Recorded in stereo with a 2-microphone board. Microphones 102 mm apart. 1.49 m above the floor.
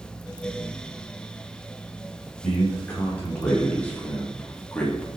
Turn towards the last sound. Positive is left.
turn(degrees=10)  # may be behind; listen again after turning